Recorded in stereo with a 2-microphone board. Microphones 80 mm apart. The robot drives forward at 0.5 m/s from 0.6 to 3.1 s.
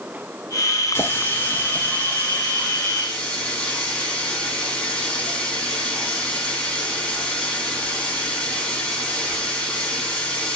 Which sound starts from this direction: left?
A running tap, at 0.9 s.